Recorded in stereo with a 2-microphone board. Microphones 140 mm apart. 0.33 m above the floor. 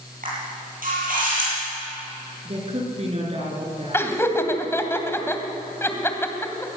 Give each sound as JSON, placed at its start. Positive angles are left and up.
{"t": 0.2, "sound": "a camera shutter", "side_deg": -85, "distance_m": 8.0}
{"t": 2.5, "sound": "a woman speaking", "side_deg": -50, "distance_m": 5.5}
{"t": 3.9, "sound": "laughter", "side_deg": 15, "distance_m": 2.5}